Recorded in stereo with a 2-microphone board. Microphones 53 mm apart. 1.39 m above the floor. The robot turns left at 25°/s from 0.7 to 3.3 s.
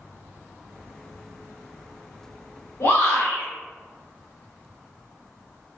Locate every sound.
2.8 s a shout: 85° left, 2.0 m